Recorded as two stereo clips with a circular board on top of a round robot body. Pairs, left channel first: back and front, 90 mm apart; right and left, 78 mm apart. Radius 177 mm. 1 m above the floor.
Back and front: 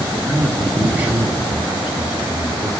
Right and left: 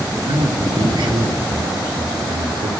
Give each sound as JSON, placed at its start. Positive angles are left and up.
{"t": 0.2, "sound": "a man speaking", "azimuth_deg": 80, "distance_m": 4.0}